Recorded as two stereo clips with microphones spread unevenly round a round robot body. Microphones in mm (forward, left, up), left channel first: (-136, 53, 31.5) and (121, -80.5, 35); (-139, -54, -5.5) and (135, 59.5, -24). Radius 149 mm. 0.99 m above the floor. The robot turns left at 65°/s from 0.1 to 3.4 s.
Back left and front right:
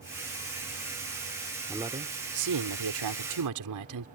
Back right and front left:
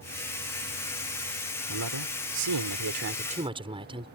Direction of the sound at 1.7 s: 60° left.